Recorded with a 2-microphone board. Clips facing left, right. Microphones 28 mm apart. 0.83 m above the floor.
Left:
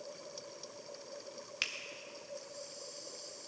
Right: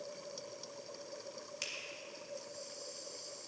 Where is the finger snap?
45° left (ahead or behind), 1.1 m.